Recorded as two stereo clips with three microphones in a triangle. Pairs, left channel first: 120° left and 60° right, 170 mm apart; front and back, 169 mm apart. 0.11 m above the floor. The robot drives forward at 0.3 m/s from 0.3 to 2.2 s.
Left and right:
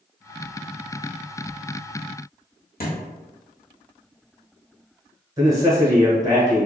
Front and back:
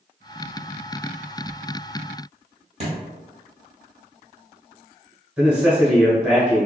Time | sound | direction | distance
2.8 | a thud | 135° left | 1.3 m
5.4 | a man speaking | 100° right | 1.2 m